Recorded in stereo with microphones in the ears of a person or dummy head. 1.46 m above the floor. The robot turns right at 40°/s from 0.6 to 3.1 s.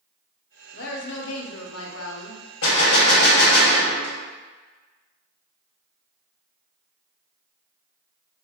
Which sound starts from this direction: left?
A gunshot, at 2.6 s.